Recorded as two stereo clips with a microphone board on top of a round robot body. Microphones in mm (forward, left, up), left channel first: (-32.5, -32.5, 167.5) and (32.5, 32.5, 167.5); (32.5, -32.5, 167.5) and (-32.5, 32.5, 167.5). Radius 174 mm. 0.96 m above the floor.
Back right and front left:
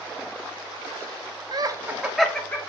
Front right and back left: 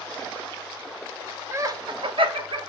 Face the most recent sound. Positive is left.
turn(degrees=160)